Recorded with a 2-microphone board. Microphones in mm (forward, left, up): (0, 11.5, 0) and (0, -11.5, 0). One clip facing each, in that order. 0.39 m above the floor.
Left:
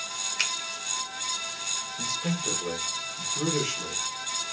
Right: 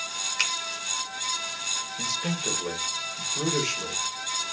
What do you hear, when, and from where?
0.4 s a finger snap: 5° right (ahead or behind), 0.8 m
2.0 s a man speaking: 25° right (ahead or behind), 1.2 m